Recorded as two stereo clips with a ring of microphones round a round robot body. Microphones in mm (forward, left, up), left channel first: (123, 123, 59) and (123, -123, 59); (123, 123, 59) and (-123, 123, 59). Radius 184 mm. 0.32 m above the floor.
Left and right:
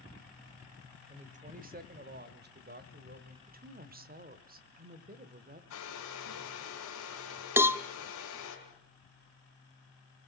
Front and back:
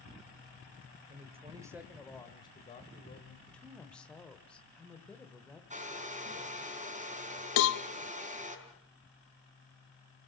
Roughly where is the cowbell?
Ahead.